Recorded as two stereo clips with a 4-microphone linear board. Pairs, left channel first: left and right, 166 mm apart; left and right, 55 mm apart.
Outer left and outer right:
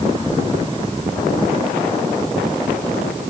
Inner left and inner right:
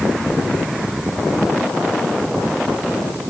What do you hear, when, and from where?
Only background noise.